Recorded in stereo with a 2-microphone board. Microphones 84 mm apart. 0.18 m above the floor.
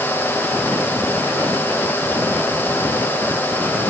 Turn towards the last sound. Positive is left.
No sound to turn to.